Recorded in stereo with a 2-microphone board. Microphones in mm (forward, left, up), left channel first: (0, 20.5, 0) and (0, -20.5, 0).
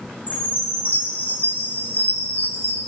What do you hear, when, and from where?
0.3 s a chime: 45° left (ahead or behind), 8 m